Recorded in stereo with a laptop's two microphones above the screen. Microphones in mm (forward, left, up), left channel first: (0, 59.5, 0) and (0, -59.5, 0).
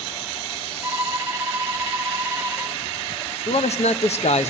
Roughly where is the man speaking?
Left.